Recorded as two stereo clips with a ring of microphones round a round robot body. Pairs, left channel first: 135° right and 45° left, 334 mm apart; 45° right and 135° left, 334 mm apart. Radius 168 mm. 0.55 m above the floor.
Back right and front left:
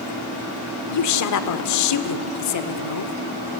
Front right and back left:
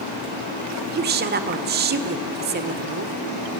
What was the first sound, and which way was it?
A woman speaking, 165° right.